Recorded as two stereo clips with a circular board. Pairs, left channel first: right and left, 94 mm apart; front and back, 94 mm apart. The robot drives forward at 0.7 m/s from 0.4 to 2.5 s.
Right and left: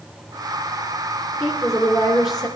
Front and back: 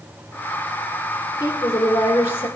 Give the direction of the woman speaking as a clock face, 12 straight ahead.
2 o'clock.